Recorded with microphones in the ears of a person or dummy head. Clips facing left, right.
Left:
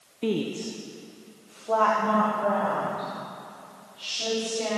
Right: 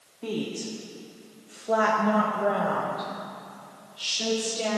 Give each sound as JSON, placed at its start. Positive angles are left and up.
{"t": 0.2, "sound": "a woman speaking", "side_deg": 20, "distance_m": 0.6}